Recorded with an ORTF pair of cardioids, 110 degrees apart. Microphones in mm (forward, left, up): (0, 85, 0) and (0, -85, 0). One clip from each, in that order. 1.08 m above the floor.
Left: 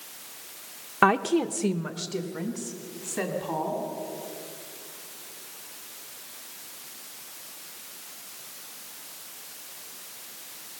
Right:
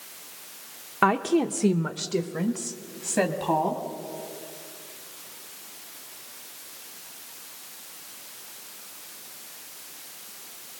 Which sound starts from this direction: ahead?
A woman speaking, at 1.0 s.